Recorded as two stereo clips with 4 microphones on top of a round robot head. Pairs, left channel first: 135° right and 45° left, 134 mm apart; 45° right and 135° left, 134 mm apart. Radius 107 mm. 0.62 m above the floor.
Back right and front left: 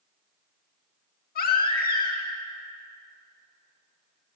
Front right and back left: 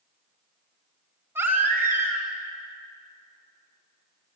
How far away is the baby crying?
About 2.5 m.